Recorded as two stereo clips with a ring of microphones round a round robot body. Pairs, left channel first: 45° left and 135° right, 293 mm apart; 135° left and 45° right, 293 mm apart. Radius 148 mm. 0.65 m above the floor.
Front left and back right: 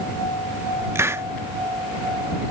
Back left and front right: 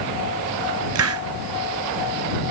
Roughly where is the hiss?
Ahead right.